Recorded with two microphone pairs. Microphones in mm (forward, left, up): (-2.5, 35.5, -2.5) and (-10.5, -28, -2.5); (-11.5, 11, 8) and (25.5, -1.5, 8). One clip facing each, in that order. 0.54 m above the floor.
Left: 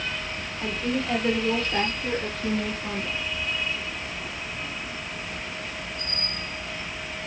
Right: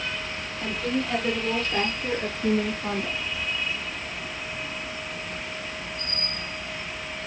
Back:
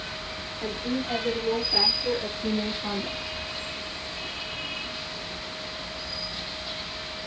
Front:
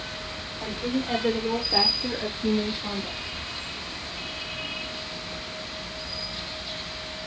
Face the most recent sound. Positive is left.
turn(degrees=-135)